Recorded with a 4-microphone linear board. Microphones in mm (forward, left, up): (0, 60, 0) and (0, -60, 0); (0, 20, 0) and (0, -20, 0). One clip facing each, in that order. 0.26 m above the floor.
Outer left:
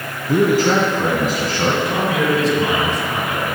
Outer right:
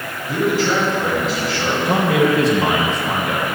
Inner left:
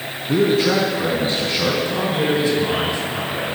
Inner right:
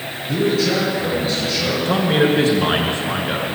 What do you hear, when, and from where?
0.3 s a man speaking: 40° left (ahead or behind), 2.5 m
1.9 s a man speaking: 65° right (ahead or behind), 4 m